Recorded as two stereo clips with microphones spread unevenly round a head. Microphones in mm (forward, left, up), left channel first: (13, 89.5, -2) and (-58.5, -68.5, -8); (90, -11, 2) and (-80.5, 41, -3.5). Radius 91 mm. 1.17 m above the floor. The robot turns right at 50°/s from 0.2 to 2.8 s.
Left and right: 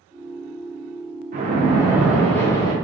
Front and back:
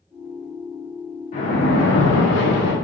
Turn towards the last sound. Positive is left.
turn(degrees=5)